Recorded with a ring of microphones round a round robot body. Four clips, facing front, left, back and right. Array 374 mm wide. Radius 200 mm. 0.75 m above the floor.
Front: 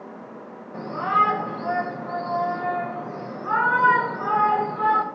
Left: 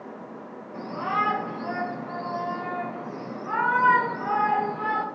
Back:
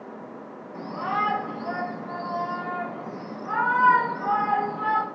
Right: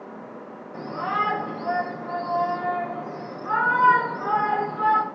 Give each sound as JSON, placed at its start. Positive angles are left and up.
{"t": 0.7, "sound": "a shout", "azimuth_deg": -15, "distance_m": 5.5}